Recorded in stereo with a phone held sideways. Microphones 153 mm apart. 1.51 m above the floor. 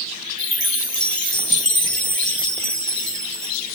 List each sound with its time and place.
0.4 s a chime: 30° left (ahead or behind), 6.5 m